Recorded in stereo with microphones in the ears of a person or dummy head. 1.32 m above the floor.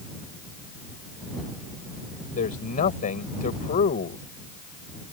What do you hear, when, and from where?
2.4 s a man speaking: 45° left (ahead or behind)